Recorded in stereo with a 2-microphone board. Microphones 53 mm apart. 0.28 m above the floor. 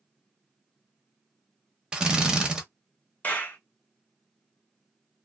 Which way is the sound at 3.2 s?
30° left (ahead or behind).